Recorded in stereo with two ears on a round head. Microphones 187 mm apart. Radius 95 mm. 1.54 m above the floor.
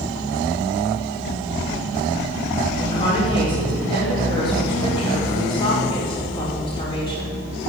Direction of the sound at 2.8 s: 25° left (ahead or behind).